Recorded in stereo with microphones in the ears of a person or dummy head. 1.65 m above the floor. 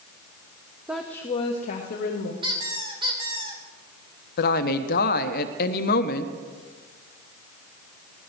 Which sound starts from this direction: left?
A woman speaking, at 4.4 s.